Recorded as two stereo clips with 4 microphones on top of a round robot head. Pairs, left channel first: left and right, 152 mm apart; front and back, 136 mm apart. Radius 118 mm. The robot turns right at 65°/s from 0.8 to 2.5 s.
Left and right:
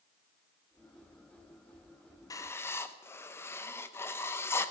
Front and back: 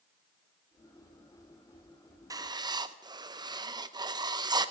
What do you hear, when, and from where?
2.3 s writing: 140° left, 0.7 m; by 4.7 s 150° left, 0.7 m